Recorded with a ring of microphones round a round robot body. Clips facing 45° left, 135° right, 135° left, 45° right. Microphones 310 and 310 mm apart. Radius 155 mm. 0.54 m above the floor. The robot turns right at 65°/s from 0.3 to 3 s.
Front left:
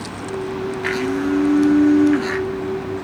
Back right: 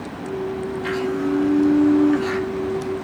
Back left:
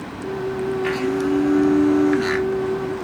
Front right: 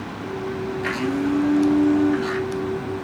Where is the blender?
30° left, 1.6 m; by 2.5 s 135° left, 1.6 m.